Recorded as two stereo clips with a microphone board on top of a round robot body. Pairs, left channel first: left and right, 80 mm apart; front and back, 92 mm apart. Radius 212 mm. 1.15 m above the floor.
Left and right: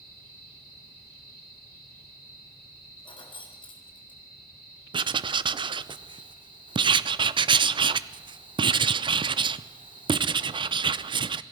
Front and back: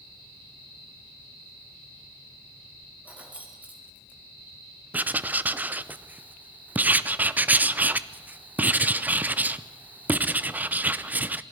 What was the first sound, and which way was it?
Keys jangling, 105° left.